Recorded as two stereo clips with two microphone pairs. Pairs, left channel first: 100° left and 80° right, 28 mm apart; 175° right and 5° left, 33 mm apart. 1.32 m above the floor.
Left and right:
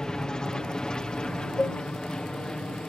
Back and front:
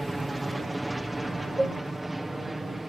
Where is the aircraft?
95° left; by 2.9 s 85° left.